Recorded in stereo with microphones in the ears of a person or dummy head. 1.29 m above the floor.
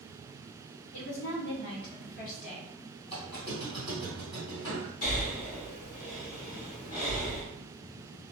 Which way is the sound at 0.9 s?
70° left (ahead or behind).